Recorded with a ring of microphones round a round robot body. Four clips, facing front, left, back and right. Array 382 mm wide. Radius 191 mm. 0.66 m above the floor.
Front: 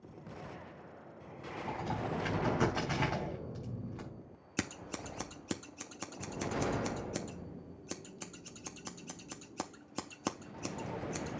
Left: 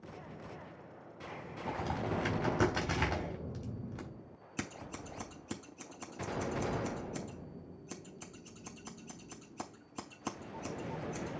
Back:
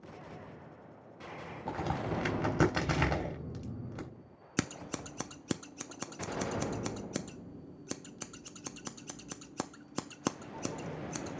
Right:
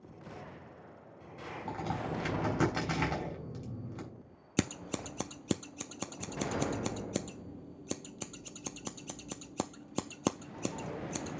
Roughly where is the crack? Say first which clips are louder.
Left 1 dB, back 2 dB; behind.